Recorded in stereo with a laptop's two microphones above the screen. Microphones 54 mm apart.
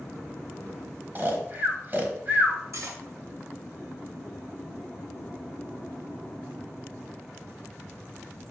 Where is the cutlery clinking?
60° right (ahead or behind), 2.5 m.